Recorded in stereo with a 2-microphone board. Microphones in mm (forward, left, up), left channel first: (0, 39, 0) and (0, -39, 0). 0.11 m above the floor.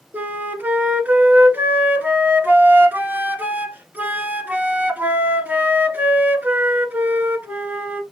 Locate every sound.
0.1 s a flute: 20° right (ahead or behind), 1.0 m